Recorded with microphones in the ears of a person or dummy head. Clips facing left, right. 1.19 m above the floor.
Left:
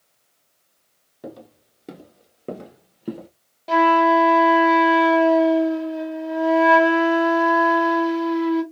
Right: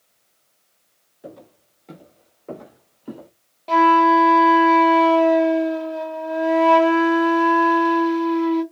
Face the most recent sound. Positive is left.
turn(degrees=5)  # may be behind; listen again after turning